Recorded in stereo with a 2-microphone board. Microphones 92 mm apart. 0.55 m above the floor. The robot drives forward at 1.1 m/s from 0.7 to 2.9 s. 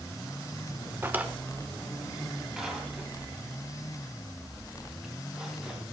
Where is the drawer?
25° right (ahead or behind), 0.8 m; by 5.8 s 5° right (ahead or behind), 2.5 m.